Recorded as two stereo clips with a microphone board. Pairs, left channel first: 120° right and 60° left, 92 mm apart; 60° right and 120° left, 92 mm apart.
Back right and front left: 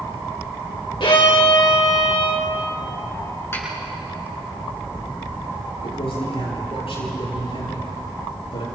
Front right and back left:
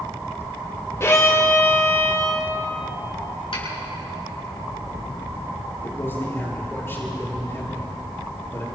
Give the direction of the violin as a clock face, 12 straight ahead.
4 o'clock.